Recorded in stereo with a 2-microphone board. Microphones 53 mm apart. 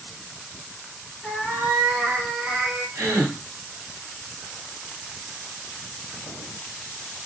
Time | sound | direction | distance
1.2 | a cat meowing | 5° left (ahead or behind) | 0.7 m
3.0 | a gasp | 45° right (ahead or behind) | 1.6 m